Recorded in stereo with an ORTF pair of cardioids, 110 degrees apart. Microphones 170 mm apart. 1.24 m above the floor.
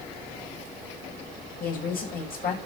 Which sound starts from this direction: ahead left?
A woman speaking, at 1.6 s.